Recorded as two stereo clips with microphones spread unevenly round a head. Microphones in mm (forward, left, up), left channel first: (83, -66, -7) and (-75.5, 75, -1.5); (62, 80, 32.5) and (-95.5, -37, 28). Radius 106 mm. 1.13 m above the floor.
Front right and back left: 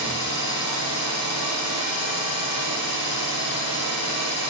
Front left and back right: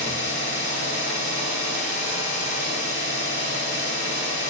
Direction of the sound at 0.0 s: 20° right.